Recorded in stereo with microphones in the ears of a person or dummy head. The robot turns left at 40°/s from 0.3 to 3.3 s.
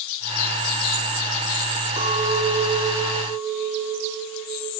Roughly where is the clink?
Behind right.